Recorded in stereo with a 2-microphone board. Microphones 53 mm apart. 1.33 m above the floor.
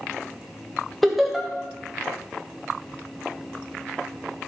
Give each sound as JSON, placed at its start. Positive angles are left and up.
{"t": 1.0, "sound": "laughter", "side_deg": 0, "distance_m": 1.5}